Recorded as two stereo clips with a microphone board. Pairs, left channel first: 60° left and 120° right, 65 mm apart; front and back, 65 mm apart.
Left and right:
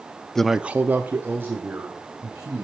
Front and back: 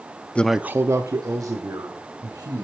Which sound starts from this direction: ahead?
A man speaking, at 0.3 s.